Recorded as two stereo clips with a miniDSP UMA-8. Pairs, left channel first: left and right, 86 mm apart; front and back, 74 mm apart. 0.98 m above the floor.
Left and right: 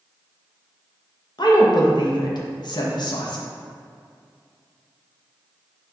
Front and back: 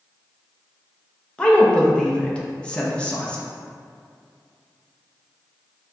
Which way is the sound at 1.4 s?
70° left.